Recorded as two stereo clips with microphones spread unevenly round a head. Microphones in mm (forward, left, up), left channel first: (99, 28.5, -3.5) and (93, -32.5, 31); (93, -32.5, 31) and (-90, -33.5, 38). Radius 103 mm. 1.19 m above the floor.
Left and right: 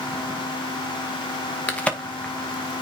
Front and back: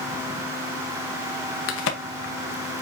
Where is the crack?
15° left, 2 m.